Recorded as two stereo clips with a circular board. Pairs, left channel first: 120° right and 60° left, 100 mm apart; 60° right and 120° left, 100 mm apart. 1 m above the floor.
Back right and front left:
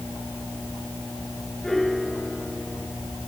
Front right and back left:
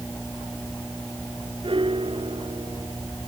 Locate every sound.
1.6 s a piano: 155° left